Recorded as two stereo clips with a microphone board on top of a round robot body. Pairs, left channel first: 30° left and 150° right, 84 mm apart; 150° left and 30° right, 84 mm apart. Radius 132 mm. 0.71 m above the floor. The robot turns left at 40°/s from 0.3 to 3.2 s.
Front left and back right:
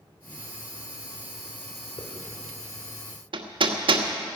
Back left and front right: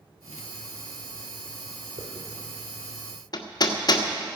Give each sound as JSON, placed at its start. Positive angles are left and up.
{"t": 2.0, "sound": "a hiss", "azimuth_deg": -15, "distance_m": 3.0}
{"t": 3.3, "sound": "hammering", "azimuth_deg": -170, "distance_m": 1.3}